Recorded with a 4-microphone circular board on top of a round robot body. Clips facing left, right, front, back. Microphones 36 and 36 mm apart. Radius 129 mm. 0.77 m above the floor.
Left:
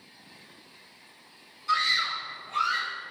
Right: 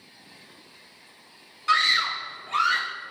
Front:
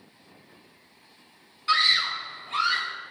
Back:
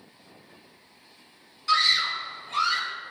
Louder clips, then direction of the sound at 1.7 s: Right 4 dB, even; 65° right.